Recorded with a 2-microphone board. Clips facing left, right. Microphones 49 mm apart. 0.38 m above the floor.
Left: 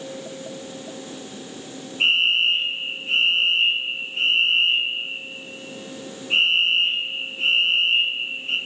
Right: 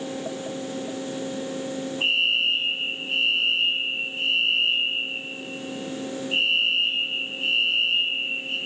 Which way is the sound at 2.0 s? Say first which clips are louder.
Left 4 dB; 60° left (ahead or behind).